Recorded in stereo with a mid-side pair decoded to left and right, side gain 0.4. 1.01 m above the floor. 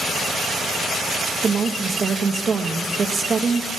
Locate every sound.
1.4 s a woman speaking: 40° right, 0.8 m